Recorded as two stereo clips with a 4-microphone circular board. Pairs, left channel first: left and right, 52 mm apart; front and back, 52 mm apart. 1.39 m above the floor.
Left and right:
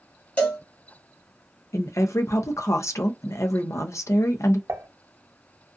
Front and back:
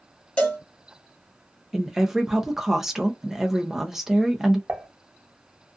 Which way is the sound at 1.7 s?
95° left.